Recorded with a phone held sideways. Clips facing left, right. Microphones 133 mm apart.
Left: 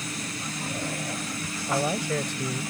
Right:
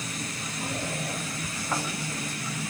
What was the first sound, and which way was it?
A man speaking, 75° left (ahead or behind).